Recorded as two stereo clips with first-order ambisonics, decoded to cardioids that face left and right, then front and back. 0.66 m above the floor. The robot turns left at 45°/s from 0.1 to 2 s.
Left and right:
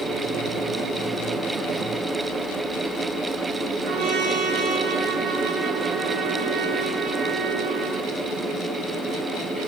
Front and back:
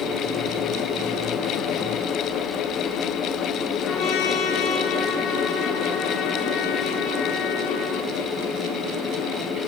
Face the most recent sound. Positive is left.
turn(degrees=-65)